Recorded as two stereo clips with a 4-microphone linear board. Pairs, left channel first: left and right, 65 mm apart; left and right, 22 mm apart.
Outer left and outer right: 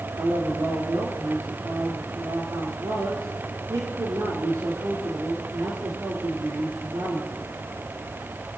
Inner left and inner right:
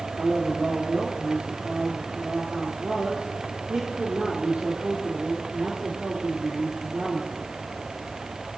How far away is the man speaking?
About 3.5 m.